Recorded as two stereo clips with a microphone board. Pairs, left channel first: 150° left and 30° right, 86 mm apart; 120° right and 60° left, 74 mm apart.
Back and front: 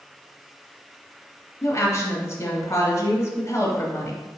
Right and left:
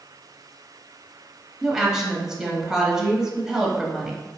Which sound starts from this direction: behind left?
A woman speaking, at 1.6 s.